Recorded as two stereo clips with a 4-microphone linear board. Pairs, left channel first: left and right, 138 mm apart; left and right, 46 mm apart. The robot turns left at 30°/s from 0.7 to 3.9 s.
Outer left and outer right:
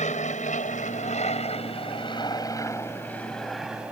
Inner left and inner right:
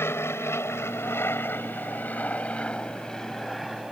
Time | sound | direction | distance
0.0 | an aircraft | 60° left (ahead or behind) | ?